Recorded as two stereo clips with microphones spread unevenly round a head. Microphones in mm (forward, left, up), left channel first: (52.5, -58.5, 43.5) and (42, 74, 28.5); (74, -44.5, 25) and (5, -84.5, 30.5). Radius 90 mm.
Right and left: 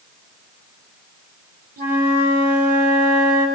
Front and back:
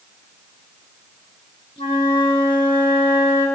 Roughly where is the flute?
Left.